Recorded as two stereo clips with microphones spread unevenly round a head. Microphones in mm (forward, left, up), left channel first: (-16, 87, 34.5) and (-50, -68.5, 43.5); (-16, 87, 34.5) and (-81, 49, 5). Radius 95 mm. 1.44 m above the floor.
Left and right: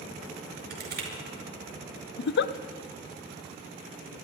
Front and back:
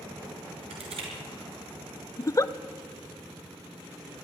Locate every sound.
0.7 s crushing: 135° right, 5 m
2.2 s a giggle: 90° left, 0.5 m